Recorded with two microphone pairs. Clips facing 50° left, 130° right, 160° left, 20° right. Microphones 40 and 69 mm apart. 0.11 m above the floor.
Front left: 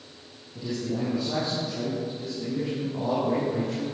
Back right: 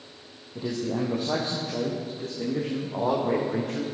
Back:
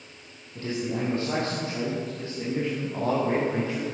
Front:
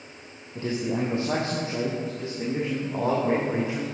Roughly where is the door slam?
No door slam in this recording.